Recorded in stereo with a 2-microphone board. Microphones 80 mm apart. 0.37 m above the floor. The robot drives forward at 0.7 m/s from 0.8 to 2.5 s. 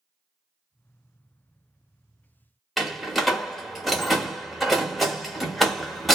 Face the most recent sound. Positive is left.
turn(degrees=0)  # may be behind; listen again after turning